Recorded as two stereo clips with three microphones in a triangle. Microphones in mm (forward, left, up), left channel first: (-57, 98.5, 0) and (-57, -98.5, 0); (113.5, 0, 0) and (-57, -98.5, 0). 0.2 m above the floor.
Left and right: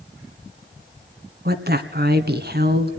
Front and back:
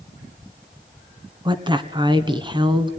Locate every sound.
1.4 s a woman speaking: 90° right, 1.9 m